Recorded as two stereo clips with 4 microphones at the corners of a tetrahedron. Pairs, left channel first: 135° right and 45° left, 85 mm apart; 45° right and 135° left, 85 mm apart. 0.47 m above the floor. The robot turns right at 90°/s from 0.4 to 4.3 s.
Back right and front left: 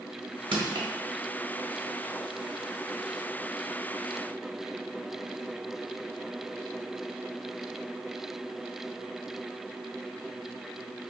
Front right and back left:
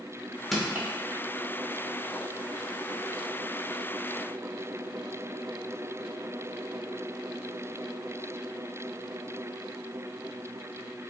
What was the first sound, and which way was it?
Crushing, 45° left.